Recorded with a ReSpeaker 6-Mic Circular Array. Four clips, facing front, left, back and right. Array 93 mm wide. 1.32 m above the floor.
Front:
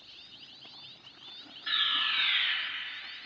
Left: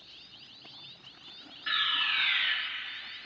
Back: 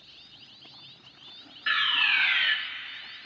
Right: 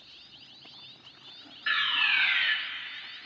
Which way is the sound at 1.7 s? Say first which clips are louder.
Right 3 dB, back 7 dB; 155° right.